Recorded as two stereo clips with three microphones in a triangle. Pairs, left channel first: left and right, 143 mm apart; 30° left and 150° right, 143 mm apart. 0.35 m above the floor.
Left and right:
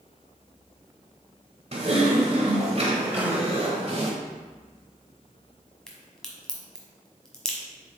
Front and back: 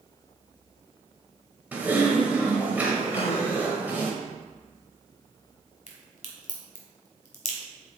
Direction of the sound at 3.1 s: 15° right.